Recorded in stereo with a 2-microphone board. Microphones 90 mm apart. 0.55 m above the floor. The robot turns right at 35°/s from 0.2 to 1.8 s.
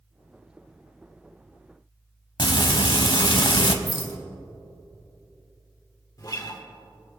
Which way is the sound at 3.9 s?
55° left (ahead or behind).